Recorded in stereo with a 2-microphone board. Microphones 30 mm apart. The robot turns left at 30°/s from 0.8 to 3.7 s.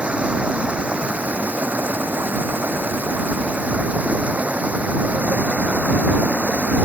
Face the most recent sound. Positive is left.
turn(degrees=-125)